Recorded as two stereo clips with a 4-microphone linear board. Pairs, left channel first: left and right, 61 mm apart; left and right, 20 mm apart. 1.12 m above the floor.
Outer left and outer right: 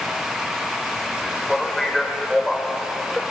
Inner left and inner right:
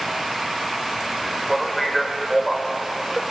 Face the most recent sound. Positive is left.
turn(degrees=5)  # may be behind; listen again after turning